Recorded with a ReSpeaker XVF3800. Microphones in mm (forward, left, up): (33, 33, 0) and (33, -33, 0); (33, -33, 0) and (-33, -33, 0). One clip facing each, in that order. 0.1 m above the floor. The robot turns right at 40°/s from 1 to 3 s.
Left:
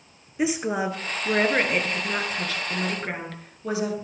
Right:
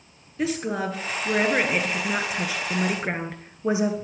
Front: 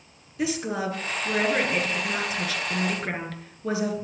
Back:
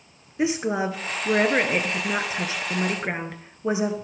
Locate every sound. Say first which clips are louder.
0.4 s a woman speaking: left 1 dB, back 4 dB; 150° left, 1.2 m; by 3.9 s 130° right, 1.2 m